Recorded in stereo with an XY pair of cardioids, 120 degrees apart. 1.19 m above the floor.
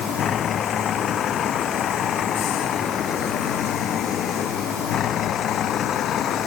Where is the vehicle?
55° left; by 6.5 s 60° left.